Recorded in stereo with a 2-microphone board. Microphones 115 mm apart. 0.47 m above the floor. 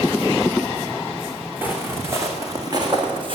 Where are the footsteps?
15° right (ahead or behind), 2.5 m; by 3.4 s 50° right (ahead or behind), 2.5 m.